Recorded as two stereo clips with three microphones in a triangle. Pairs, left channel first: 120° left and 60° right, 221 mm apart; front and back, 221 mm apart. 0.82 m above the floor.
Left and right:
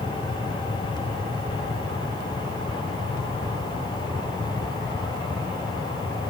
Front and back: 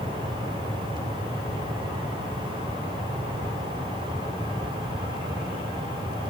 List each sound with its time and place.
Only background noise.